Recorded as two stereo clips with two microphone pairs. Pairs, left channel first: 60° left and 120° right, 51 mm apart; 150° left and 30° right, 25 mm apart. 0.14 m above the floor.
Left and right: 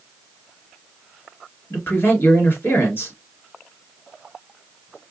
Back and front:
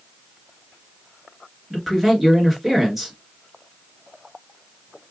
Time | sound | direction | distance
1.7 | a man speaking | 50° left | 2 m